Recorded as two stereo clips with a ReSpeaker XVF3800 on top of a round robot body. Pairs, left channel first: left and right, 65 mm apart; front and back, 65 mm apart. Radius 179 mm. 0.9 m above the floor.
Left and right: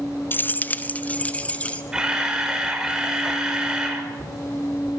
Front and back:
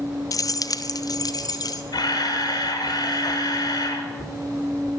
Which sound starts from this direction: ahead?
A camera shutter, at 1.9 s.